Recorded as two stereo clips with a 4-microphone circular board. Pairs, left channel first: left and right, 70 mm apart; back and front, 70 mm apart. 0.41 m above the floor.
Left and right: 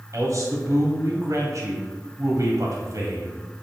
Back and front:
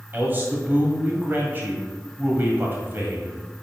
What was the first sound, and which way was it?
A man speaking, 60° right.